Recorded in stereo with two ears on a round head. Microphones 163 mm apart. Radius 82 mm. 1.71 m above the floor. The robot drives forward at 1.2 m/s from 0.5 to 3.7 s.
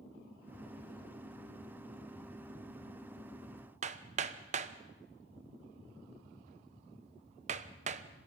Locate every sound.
3.8 s hammering: 40° right (ahead or behind), 1.1 m